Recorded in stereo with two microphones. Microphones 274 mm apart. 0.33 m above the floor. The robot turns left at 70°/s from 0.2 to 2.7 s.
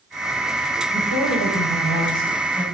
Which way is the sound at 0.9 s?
115° left.